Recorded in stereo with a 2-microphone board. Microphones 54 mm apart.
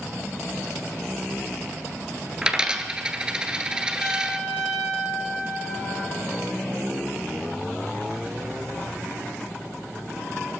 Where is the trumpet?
5° left (ahead or behind), 8 m.